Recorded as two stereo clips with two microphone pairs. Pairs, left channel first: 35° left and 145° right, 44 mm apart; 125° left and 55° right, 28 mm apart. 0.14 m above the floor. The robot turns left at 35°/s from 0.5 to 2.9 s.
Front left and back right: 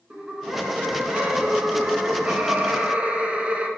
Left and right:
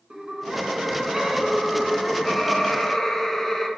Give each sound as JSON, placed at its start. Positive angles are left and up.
{"t": 0.1, "sound": "laughter", "azimuth_deg": -95, "distance_m": 1.3}